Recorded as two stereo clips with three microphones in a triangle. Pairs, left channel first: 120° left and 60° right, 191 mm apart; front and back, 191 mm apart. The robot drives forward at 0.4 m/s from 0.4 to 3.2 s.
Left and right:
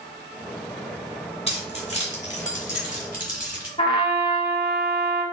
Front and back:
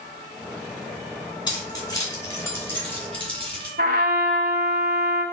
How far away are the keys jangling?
About 2.5 m.